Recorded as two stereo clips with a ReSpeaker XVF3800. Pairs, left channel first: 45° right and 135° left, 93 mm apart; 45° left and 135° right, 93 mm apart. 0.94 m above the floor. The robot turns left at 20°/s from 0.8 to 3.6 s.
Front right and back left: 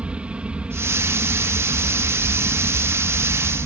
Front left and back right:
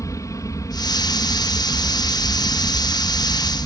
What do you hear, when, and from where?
0.0 s an aircraft: 65° left; by 3.7 s 10° left